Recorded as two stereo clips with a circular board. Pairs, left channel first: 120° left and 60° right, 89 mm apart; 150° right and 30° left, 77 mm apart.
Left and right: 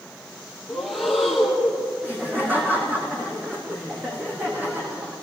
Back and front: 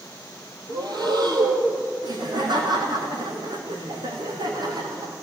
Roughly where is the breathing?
Ahead left.